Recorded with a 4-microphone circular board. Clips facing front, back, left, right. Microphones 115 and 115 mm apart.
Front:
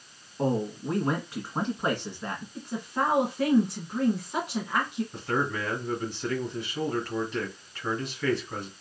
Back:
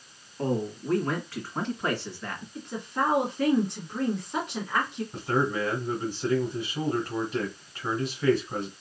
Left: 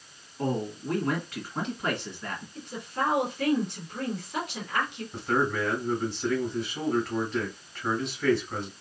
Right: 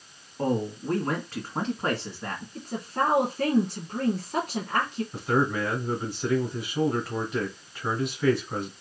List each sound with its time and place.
0.4 s a man speaking: 65° right, 1.5 m
2.5 s a woman speaking: 85° right, 1.6 m
5.1 s a man speaking: 140° right, 1.7 m